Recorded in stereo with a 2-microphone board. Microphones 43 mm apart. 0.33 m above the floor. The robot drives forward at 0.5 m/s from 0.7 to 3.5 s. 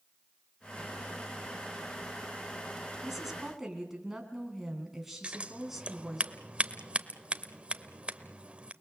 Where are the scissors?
30° right (ahead or behind), 0.9 m.